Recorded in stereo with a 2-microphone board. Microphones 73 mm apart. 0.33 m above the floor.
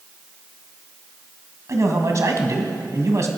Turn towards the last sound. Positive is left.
turn(degrees=-45)  # may be behind; listen again after turning